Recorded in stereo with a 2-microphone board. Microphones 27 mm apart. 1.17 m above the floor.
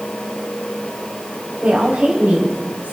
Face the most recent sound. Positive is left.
turn(degrees=-70)  # may be behind; listen again after turning